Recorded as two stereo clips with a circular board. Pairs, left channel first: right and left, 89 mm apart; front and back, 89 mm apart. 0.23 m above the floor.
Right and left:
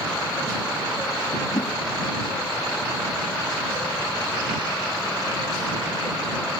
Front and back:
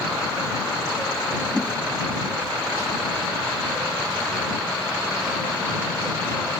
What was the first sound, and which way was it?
A whoosh, 75° right.